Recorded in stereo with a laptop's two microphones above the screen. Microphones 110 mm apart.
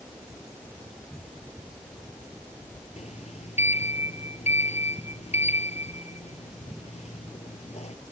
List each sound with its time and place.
3.0 s a sliding door: 85° left